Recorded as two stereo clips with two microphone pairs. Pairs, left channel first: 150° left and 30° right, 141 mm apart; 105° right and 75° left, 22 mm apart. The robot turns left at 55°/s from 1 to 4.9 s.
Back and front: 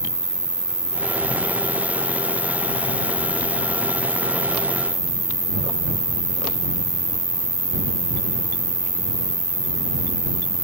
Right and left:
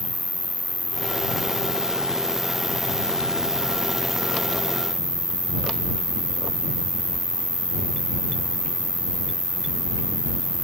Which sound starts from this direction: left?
An insect, at 0.0 s.